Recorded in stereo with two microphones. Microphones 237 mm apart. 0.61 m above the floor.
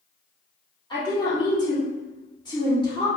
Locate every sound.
0.9 s a woman speaking: 20° left (ahead or behind), 1.4 m